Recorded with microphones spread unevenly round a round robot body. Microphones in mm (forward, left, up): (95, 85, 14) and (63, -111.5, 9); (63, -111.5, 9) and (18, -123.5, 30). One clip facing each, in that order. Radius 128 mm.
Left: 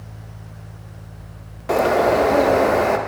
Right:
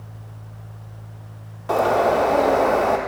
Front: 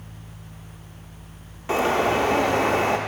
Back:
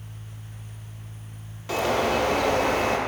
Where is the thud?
I don't hear a thud.